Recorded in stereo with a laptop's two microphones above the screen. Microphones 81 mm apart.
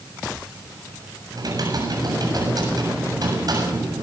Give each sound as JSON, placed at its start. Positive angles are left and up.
{"t": 1.3, "sound": "typing on a keyboard", "side_deg": -55, "distance_m": 7.5}